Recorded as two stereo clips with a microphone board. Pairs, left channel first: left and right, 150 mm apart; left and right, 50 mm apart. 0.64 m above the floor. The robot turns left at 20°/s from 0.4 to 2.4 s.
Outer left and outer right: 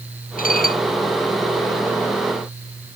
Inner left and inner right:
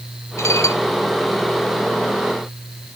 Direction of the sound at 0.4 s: 70° left (ahead or behind).